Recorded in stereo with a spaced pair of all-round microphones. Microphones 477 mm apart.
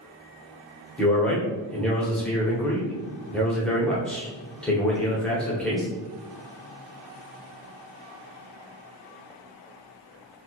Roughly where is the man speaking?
Centre.